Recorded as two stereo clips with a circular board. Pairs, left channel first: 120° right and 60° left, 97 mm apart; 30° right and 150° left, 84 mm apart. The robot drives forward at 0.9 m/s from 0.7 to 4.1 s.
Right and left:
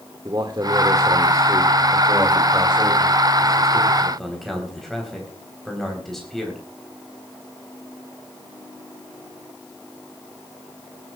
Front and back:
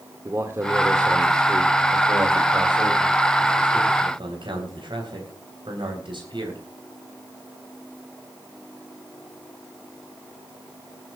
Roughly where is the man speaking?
Left.